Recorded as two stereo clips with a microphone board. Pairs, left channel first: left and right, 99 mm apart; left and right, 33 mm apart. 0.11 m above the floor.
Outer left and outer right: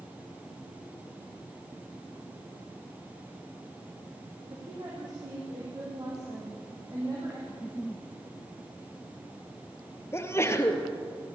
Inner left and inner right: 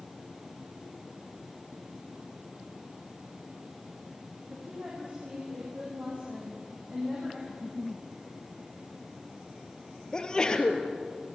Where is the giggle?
5° left (ahead or behind), 1.1 m.